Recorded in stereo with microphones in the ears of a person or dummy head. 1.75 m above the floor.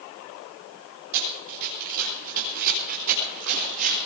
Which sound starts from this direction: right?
Running footsteps, at 1.1 s.